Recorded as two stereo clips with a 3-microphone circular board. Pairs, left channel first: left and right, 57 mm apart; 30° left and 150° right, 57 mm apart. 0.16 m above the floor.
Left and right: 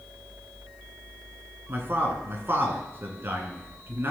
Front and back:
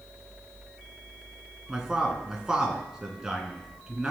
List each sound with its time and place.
1.7 s a man speaking: 75° right, 2 m